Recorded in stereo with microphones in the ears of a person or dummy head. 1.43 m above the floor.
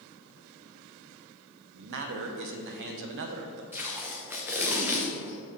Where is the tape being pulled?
10° right (ahead or behind), 0.9 m.